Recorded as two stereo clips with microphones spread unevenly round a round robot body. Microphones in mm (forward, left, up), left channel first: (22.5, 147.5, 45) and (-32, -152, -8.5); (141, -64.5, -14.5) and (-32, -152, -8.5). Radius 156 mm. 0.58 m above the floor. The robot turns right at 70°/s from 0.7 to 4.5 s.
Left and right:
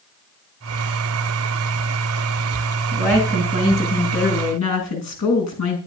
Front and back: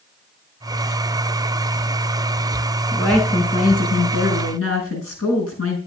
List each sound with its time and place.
2.9 s a woman speaking: 70° right, 6 m; by 5.8 s 40° left, 6 m